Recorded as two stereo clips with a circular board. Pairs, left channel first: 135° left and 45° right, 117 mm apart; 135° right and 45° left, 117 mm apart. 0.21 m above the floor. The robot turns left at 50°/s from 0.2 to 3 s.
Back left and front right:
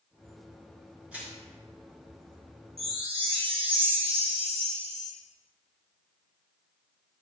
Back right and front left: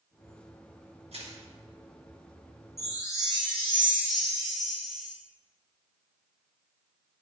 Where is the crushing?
35° left, 4 m; by 1.4 s 20° left, 4 m.